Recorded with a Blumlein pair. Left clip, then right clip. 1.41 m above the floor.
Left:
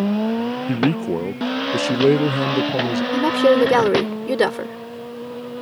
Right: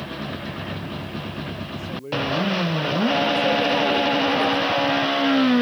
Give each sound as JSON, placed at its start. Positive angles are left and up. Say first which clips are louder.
{"t": 0.7, "sound": "a man speaking", "louder": "left 11 dB", "azimuth_deg": 40}
{"t": 3.1, "sound": "a woman speaking", "louder": "left 6 dB", "azimuth_deg": 60}